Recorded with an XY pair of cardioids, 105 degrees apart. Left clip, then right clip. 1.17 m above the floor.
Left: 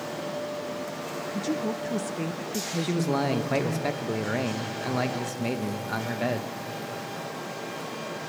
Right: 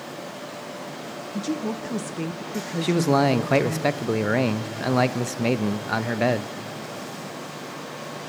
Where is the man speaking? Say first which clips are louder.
Right 8 dB; 45° right, 0.8 m.